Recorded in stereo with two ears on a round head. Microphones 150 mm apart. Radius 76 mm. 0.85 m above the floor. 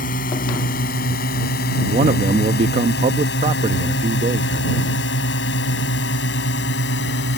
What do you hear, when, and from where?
0.0 s a drone: 55° left (ahead or behind); by 7.4 s 70° left (ahead or behind)
1.9 s a man speaking: 40° right (ahead or behind)